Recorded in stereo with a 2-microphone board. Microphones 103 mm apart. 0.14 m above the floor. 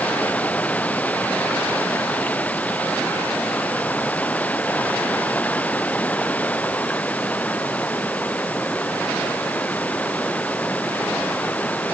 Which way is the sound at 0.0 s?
15° left (ahead or behind).